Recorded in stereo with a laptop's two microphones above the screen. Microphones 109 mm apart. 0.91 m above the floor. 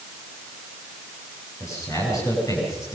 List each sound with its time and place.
1.6 s a man speaking: 30° left (ahead or behind), 10 m